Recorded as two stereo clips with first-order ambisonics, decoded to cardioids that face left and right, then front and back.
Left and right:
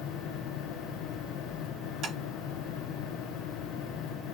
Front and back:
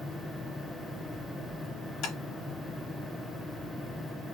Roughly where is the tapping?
Ahead right.